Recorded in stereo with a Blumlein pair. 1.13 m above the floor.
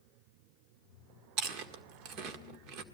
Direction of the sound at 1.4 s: 35° right.